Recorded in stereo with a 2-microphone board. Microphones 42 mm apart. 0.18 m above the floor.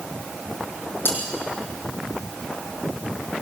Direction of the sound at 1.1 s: 65° left (ahead or behind).